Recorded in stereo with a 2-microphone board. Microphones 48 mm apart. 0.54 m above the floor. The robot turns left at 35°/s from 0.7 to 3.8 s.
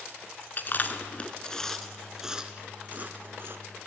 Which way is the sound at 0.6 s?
45° left (ahead or behind).